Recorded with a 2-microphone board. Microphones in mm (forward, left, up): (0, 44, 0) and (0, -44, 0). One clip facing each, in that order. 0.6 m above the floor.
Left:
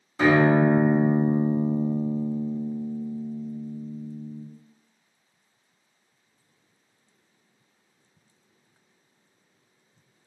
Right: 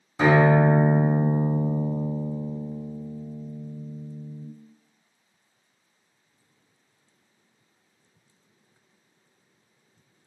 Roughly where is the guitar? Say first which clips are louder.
Even; centre.